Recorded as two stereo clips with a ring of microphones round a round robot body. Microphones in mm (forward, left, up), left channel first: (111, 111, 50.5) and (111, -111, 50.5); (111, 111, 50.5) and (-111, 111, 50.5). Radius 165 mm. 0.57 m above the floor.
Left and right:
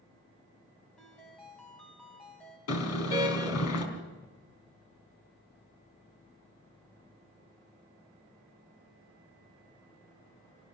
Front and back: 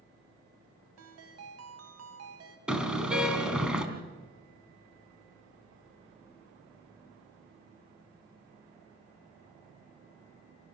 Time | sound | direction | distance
1.0 | a ringtone | 175° left | 2.5 m
2.7 | a car horn | 95° left | 3.5 m